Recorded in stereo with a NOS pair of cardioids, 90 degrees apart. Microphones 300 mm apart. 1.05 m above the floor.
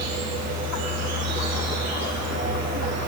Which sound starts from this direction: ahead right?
An insect, at 0.0 s.